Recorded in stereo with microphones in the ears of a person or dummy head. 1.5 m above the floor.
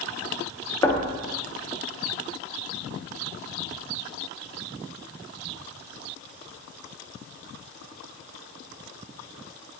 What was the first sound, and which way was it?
Knocking, 25° left (ahead or behind).